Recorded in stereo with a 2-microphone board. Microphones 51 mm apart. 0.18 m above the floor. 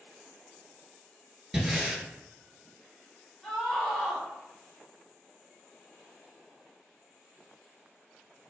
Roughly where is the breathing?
Centre.